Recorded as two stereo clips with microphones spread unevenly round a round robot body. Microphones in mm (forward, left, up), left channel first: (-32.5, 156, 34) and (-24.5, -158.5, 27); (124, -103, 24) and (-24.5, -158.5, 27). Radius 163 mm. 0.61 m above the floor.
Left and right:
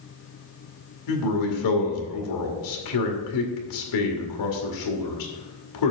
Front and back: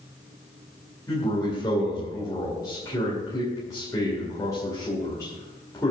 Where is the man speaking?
95° left, 2 m.